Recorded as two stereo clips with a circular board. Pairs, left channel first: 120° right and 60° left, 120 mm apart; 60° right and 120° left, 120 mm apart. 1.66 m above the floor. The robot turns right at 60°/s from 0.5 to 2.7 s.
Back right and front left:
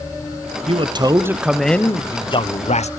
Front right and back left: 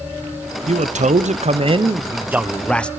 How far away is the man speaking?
About 1.0 m.